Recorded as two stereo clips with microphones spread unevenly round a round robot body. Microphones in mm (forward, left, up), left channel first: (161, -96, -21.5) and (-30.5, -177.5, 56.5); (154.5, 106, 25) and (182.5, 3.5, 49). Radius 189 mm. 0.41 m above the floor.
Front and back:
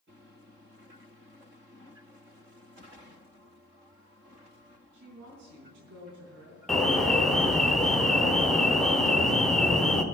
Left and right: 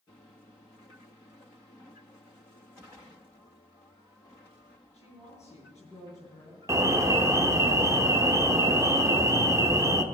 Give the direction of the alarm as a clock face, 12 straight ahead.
1 o'clock.